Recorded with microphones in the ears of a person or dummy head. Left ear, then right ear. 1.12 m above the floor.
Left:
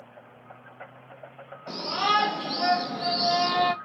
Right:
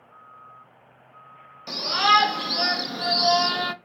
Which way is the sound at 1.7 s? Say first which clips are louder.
Right 6 dB; 45° right (ahead or behind).